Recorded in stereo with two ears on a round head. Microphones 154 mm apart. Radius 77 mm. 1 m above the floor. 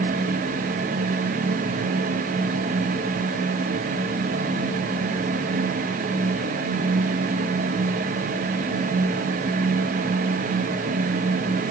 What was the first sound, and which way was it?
Only background noise.